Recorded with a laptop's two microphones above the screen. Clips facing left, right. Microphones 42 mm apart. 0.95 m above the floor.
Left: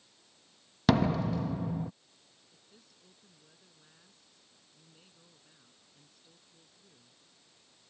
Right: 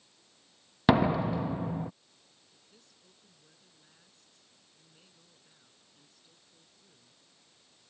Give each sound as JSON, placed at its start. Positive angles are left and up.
{"t": 0.9, "sound": "a door slam", "side_deg": -20}
{"t": 2.5, "sound": "a woman speaking", "side_deg": 0}